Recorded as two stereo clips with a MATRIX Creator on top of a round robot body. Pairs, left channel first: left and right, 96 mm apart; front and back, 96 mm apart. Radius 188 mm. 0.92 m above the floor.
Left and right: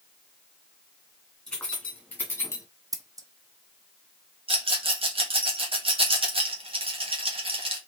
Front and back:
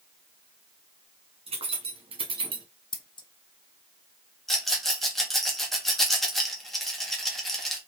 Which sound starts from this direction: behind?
Keys jangling, at 1.5 s.